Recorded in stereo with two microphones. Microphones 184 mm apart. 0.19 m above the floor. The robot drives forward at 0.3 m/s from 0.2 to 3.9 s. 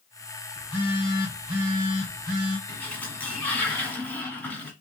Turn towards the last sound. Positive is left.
turn(degrees=10)  # may be behind; listen again after turning